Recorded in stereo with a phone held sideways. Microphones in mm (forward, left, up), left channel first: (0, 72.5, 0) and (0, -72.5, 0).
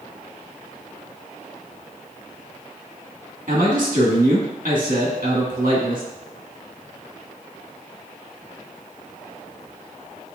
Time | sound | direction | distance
3.5 | a man speaking | 75° right (ahead or behind) | 1.4 m